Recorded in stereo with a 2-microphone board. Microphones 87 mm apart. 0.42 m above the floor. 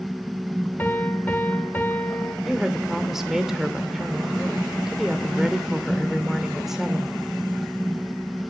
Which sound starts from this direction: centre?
A woman speaking, at 2.5 s.